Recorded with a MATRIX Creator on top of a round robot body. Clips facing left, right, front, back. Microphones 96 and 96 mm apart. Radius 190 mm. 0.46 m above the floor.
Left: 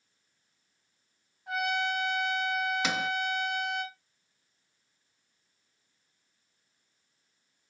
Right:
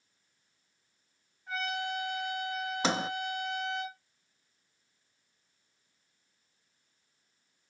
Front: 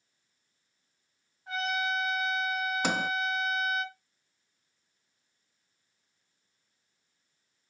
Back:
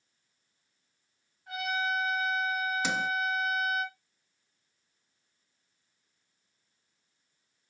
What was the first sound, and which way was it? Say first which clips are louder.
A trumpet: left 5 dB, front 1 dB; 65° left.